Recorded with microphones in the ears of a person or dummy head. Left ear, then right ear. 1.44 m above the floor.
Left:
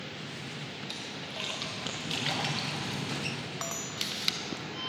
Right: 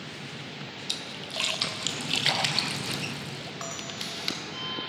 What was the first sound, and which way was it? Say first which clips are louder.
A splash: right 8 dB; 25° right (ahead or behind).